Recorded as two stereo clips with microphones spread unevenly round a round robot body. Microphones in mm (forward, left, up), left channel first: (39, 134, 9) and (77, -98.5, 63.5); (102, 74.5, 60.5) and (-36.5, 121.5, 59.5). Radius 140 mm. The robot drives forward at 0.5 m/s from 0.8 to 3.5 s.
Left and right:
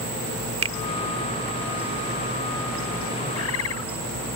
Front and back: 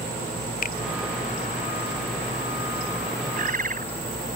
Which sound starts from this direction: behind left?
A bird, at 3.4 s.